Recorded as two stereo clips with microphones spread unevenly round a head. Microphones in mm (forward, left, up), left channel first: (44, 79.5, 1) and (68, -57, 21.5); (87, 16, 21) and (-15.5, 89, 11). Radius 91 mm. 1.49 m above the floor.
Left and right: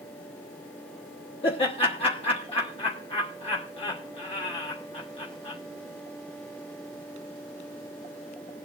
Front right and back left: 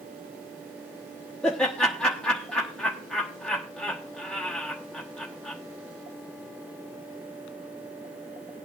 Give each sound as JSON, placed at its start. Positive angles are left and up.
{"t": 1.4, "sound": "laughter", "azimuth_deg": 50, "distance_m": 1.3}